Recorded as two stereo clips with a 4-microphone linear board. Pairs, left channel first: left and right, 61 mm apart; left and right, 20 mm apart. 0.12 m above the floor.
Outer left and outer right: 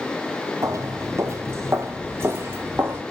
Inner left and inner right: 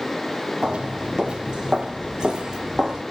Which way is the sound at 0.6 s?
60° right (ahead or behind).